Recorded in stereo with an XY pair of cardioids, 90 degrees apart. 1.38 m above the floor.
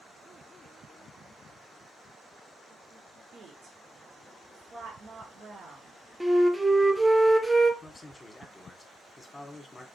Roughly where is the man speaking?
Ahead left.